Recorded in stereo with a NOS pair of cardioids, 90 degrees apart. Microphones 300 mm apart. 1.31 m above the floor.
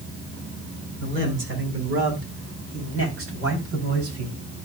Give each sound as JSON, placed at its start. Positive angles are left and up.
{"t": 1.0, "sound": "a man speaking", "azimuth_deg": -40, "distance_m": 6.0}